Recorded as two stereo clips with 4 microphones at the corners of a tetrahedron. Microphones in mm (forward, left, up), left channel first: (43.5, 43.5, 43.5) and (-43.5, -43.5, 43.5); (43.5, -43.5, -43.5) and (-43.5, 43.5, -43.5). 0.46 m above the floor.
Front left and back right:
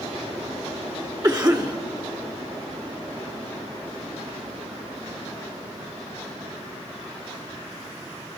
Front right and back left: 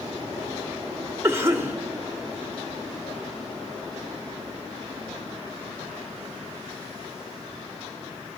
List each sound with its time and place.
1.2 s a cough: 170° right, 1.2 m